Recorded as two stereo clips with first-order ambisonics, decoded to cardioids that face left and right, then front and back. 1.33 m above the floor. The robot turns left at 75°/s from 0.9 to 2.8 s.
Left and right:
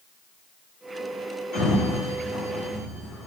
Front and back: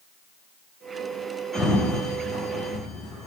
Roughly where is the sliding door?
Left.